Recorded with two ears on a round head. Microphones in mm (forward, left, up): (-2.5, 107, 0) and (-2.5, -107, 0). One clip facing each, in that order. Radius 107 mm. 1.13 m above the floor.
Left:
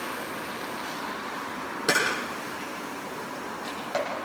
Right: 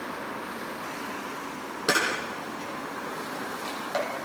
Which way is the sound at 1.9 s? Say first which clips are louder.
Even; centre (ahead or behind).